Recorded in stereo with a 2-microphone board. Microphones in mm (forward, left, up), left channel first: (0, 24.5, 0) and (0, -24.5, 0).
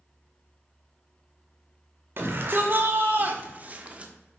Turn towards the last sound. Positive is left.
turn(degrees=-25)  # may be behind; listen again after turning